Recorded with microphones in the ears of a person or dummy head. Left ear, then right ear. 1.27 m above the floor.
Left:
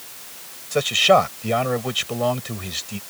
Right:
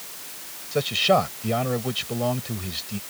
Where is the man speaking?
30° left (ahead or behind).